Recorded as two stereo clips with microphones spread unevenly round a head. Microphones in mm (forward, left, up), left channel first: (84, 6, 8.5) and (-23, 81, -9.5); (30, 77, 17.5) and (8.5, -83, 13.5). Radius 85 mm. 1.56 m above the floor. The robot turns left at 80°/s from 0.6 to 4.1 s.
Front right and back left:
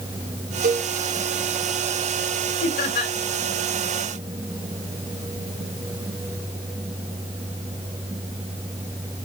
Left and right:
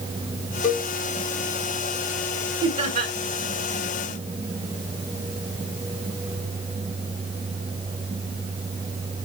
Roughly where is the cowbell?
Behind left.